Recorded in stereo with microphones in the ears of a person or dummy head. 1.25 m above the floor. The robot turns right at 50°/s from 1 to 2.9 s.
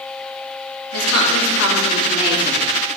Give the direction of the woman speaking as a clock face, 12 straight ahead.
9 o'clock.